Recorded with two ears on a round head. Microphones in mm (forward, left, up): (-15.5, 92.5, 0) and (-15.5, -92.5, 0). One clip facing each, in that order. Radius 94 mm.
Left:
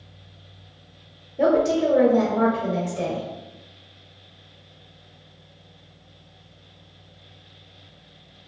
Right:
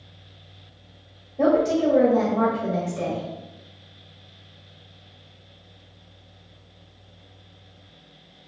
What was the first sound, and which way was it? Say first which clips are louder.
A woman speaking: even; 5° left (ahead or behind).